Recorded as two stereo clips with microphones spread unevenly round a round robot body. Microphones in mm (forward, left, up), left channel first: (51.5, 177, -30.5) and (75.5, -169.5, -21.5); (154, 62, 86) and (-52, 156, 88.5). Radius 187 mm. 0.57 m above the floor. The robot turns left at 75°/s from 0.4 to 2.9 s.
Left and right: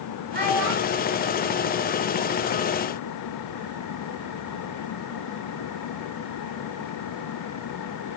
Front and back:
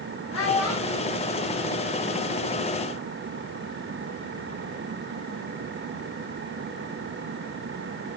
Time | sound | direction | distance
0.3 | a child speaking | 25° right | 1.8 m